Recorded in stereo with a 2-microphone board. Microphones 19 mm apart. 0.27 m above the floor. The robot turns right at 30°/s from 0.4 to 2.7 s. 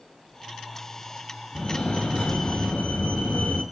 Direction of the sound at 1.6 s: 45° left.